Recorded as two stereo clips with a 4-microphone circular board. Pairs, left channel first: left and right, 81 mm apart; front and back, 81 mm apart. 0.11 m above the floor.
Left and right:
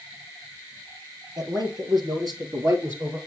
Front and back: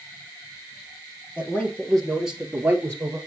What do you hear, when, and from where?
1.4 s a man speaking: 65° right, 3 m; by 3.2 s 140° right, 2.5 m